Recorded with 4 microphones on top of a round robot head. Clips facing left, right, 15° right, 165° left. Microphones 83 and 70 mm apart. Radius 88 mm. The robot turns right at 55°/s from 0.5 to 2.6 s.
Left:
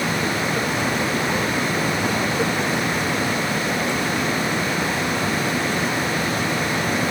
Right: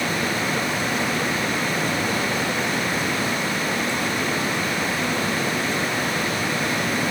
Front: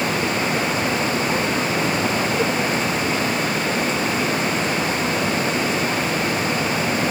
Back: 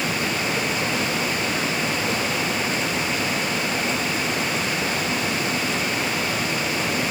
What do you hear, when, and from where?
Only background noise.